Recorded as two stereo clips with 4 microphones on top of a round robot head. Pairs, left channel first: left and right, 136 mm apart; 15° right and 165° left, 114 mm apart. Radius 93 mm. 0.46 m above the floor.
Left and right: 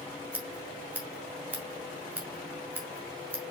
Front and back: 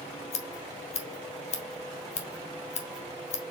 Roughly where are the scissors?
Ahead.